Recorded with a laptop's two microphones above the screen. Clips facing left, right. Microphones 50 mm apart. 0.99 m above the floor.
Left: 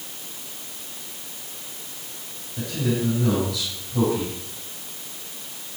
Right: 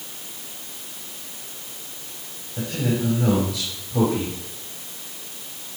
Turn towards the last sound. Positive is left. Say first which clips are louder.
# right 1 dB
turn(degrees=-40)  # may be behind; listen again after turning